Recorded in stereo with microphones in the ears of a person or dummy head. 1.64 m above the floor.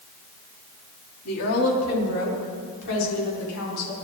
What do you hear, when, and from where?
1.2 s a woman speaking: 80° left, 4 m; by 3.9 s 75° left (ahead or behind), 6.5 m